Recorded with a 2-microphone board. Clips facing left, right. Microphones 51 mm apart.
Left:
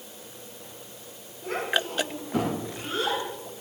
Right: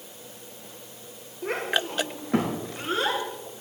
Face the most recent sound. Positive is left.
turn(degrees=-80)